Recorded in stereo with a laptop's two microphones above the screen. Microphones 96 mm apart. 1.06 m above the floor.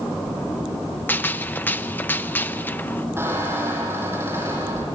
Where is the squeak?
30° right (ahead or behind), 7 m.